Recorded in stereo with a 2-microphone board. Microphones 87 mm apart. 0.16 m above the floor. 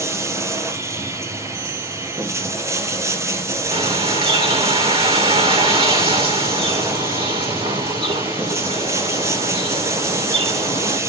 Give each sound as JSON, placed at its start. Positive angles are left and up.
{"t": 0.0, "sound": "running water", "side_deg": -30, "distance_m": 1.3}
{"t": 3.7, "sound": "a bird", "side_deg": -65, "distance_m": 3.5}